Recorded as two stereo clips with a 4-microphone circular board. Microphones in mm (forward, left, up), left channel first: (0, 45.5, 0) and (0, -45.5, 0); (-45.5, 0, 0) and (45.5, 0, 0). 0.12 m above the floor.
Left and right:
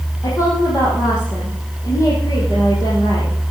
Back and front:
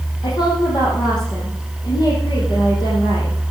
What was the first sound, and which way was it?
A woman speaking, 145° left.